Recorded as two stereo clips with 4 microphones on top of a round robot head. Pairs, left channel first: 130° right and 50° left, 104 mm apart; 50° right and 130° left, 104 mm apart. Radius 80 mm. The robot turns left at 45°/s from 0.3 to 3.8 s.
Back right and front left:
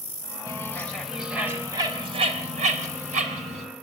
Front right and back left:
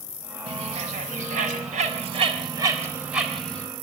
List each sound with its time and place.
0.5 s a bird: 170° left, 4.5 m; by 3.7 s 25° left, 4.5 m